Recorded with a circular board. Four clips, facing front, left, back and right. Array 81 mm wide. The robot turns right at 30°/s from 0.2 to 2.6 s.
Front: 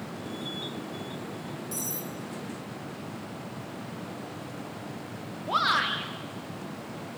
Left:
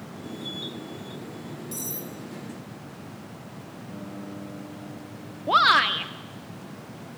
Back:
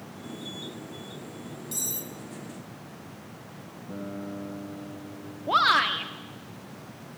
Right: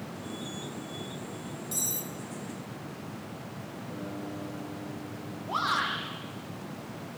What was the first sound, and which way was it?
Cutlery clinking, 155° right.